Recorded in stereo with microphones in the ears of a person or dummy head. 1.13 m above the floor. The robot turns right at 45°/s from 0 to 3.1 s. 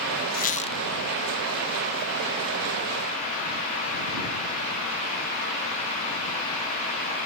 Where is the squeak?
40° left (ahead or behind); by 0.8 s 20° left (ahead or behind).